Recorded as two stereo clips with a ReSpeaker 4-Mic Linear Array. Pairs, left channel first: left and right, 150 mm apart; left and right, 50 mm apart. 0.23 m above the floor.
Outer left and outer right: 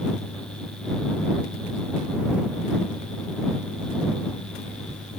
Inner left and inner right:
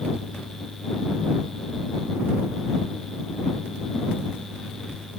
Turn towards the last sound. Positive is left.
No sound to turn to.